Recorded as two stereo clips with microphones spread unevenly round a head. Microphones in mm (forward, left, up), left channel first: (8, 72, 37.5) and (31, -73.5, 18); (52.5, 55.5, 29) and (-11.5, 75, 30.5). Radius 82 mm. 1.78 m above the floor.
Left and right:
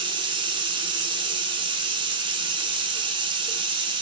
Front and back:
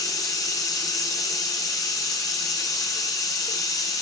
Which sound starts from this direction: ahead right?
Running water, at 0.0 s.